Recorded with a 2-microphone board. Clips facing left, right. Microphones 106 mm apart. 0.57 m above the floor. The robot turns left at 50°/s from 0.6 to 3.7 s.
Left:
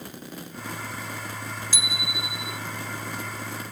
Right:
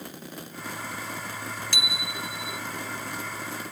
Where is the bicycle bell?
115° right; by 2.6 s 160° right.